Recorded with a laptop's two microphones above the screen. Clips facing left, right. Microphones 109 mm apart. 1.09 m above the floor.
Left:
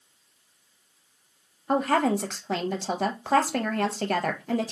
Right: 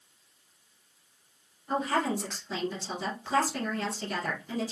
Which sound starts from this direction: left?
A woman speaking, at 1.7 s.